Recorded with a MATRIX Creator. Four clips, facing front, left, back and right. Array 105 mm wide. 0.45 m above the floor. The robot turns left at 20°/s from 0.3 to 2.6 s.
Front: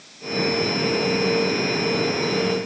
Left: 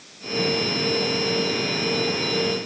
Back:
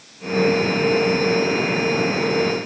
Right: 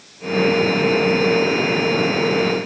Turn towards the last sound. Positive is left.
No sound to turn to.